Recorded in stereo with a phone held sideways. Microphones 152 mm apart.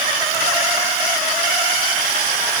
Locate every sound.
Only background noise.